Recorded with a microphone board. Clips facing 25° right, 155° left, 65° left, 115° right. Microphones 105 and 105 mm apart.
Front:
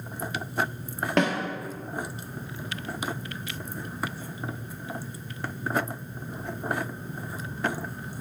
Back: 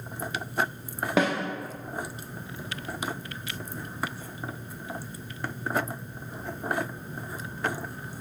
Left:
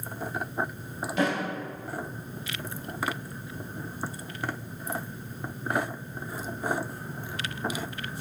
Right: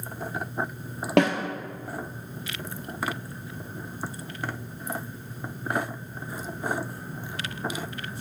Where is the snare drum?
120° right, 1.5 m.